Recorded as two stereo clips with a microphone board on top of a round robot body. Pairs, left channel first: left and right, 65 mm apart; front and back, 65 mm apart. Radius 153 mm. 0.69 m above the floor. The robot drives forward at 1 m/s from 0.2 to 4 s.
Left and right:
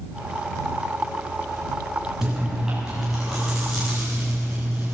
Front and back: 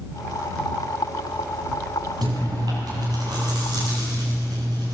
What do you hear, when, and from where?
2.2 s chewing: 175° right, 6.5 m